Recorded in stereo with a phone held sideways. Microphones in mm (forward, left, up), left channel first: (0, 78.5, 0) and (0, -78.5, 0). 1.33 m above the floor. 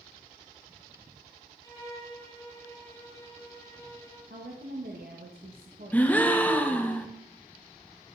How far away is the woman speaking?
About 1.3 m.